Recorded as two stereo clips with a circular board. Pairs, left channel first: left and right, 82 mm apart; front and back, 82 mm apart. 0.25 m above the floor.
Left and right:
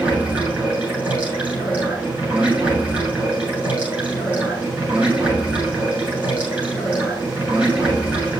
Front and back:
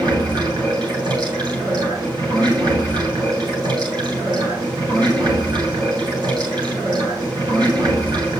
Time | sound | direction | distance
0.0 | running water | 165° right | 7 m